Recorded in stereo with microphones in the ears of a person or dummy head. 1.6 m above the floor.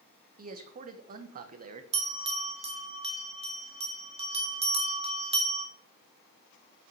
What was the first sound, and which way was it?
A man speaking, 40° right (ahead or behind).